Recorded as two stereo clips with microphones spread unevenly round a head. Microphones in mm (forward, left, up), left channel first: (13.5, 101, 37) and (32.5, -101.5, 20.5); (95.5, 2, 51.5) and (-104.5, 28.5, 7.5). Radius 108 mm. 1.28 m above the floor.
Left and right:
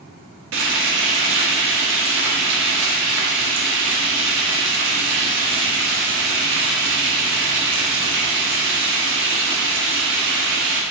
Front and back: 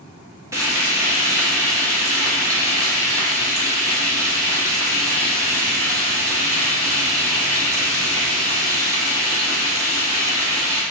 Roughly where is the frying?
Behind right.